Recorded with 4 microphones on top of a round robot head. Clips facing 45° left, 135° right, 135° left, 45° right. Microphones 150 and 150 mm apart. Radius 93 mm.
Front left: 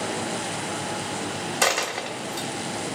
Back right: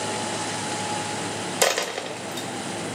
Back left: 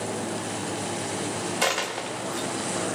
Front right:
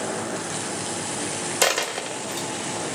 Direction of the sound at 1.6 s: 80° right.